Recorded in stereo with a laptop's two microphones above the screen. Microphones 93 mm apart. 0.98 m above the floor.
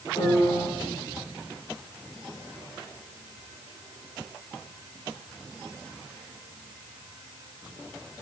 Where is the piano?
55° left (ahead or behind), 3.5 m.